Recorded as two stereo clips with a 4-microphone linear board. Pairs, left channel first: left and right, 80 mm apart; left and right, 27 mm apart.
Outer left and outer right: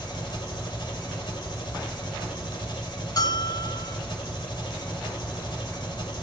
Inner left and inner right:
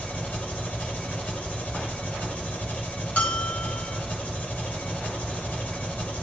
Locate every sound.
0.0 s an engine running: 75° left (ahead or behind), 2.5 m
3.2 s a bell: 55° left (ahead or behind), 1.3 m